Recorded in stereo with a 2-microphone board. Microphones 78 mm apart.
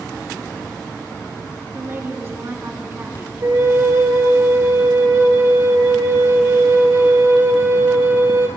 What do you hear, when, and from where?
1.7 s a woman speaking: 35° right (ahead or behind), 2.5 m
3.4 s a flute: 45° right (ahead or behind), 2 m